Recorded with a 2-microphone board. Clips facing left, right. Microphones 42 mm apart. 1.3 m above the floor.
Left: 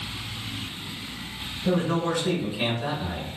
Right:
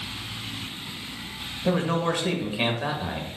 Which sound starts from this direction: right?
A man speaking, at 1.6 s.